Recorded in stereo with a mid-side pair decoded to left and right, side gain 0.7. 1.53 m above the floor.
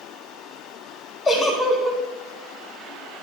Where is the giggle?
35° left, 6 m.